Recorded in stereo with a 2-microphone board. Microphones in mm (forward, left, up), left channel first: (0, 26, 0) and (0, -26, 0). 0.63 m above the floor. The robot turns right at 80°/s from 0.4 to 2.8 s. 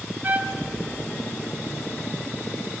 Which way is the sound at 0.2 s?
35° right (ahead or behind).